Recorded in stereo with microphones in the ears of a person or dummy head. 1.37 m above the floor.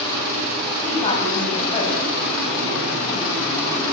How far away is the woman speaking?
About 7.5 m.